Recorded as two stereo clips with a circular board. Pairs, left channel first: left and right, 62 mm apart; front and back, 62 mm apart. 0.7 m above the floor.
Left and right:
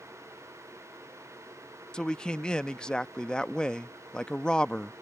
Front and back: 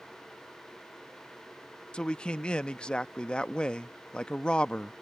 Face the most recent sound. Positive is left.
turn(degrees=45)